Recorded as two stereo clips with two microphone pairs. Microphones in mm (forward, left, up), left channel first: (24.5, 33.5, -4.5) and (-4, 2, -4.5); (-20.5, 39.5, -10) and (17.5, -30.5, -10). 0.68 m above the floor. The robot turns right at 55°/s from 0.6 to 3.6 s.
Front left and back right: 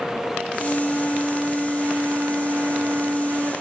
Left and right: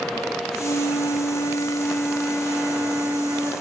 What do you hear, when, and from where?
0.6 s a flute: 105° left, 0.9 m; by 3.5 s 95° right, 0.9 m